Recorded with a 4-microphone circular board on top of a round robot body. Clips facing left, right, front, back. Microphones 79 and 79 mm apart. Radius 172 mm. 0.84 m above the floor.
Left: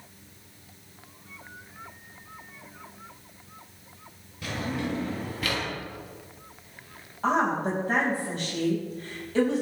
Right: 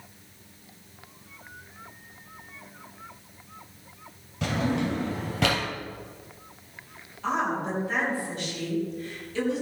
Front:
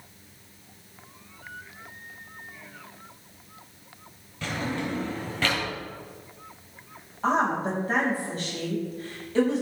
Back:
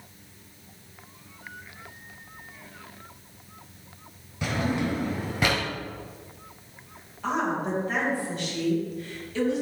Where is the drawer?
105° right, 3 m.